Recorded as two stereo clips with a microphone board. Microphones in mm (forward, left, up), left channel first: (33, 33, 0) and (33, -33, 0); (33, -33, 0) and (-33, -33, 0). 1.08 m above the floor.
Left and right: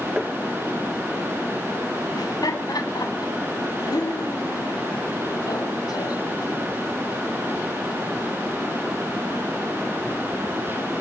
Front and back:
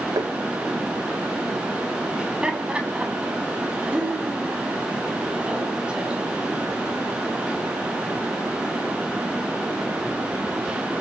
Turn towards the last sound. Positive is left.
turn(degrees=105)